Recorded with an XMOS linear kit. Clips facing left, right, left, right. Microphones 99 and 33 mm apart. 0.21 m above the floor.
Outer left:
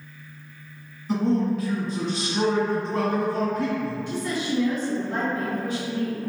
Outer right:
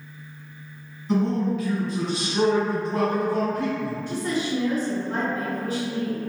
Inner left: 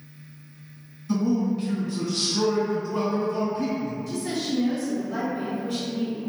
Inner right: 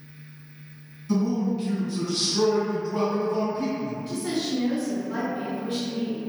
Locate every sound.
1.1 s a man speaking: 5° left (ahead or behind), 1.5 m; by 3.9 s 20° right (ahead or behind), 1.5 m
4.1 s a woman speaking: 40° right (ahead or behind), 1.9 m